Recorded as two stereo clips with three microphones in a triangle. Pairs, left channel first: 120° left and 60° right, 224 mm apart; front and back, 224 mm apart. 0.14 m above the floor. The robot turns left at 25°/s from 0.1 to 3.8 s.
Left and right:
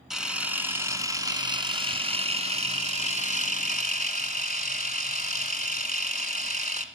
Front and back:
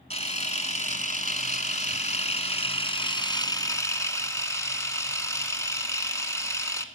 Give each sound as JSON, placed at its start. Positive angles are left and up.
{"t": 0.1, "sound": "a camera shutter", "azimuth_deg": 25, "distance_m": 1.8}